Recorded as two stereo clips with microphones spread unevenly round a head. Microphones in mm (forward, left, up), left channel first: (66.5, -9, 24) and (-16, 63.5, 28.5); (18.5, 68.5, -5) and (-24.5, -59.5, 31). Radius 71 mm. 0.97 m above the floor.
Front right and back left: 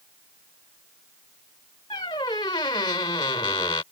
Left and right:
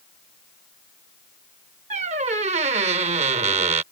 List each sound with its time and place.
1.9 s a squeak: 100° right